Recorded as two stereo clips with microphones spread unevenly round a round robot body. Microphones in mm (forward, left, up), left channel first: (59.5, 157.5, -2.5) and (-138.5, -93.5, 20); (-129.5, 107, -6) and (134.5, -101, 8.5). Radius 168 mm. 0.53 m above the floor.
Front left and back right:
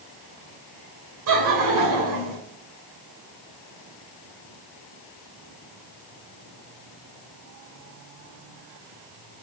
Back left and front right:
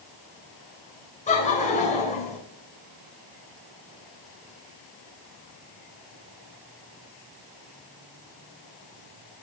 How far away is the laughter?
About 2.5 m.